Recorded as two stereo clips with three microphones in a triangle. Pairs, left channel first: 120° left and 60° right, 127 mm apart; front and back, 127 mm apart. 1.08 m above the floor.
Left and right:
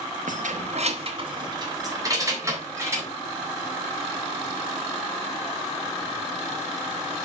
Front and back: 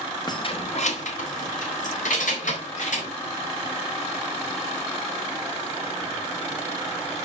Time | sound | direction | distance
0.3 | keys jangling | 60° right | 1.3 m